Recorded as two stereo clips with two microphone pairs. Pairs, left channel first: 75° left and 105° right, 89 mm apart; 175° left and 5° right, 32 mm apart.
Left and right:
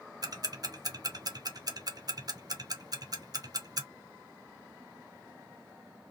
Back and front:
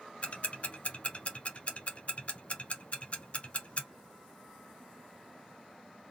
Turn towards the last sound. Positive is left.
turn(degrees=-140)